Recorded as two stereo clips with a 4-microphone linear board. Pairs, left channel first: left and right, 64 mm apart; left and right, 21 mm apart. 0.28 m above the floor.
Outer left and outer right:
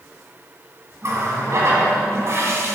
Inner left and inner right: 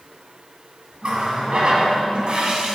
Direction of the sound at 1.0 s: 50° right (ahead or behind).